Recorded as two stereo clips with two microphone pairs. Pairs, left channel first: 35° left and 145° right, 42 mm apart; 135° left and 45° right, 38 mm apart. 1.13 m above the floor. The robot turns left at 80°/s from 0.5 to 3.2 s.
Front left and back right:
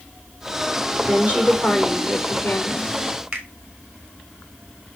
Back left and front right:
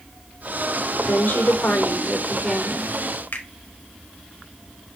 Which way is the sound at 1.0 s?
175° left.